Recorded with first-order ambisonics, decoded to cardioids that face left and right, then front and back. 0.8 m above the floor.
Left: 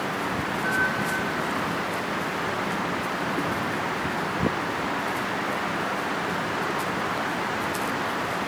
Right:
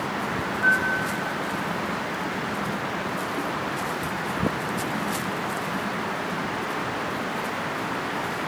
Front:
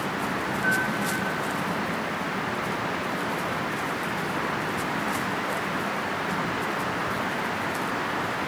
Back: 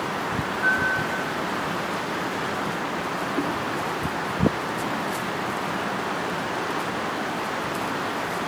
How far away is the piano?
About 2.5 m.